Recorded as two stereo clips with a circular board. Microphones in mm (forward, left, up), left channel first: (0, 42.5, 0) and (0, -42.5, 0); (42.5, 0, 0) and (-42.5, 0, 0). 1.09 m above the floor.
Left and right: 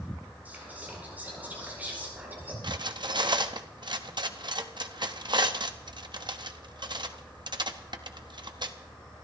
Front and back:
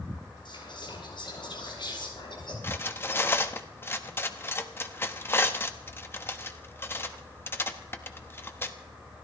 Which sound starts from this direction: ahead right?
Cutlery clinking, at 2.6 s.